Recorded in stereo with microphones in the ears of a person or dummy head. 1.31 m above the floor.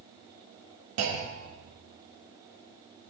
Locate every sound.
1.0 s a clunk: 70° right (ahead or behind), 0.8 m